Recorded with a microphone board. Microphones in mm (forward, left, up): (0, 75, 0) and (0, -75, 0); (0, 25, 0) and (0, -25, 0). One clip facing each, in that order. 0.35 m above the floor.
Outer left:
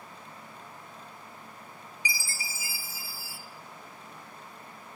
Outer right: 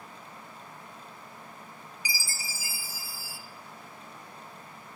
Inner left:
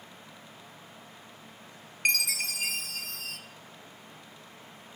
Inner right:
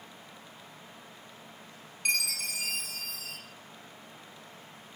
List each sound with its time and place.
2.0 s a chime: 60° left (ahead or behind), 0.6 m